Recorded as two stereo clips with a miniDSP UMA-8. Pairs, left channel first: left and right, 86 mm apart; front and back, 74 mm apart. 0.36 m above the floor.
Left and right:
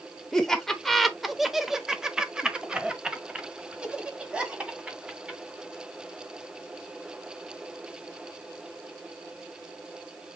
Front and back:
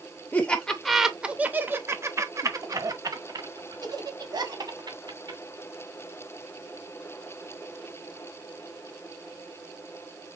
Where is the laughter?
15° left, 0.8 m; by 5.4 s 165° right, 2.5 m.